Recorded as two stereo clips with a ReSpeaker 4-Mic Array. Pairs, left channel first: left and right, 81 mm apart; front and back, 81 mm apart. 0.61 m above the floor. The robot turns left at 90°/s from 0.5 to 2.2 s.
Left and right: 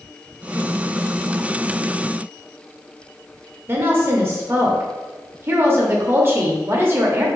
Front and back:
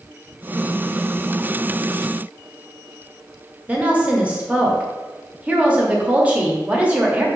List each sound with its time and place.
3.7 s a woman speaking: 120° right, 0.7 m